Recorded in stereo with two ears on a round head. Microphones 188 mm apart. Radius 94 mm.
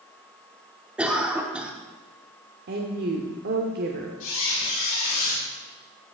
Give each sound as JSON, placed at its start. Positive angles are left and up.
{"t": 1.0, "sound": "a cough", "side_deg": -5, "distance_m": 0.9}
{"t": 2.7, "sound": "a woman speaking", "side_deg": -50, "distance_m": 0.9}
{"t": 4.2, "sound": "a squeak", "side_deg": 70, "distance_m": 4.0}